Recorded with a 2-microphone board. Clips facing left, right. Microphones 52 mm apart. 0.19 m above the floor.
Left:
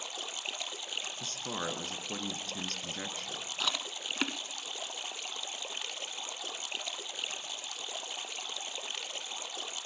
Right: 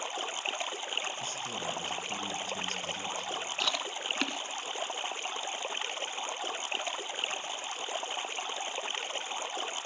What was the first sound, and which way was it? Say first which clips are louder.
Running water: right 6 dB; 35° right (ahead or behind).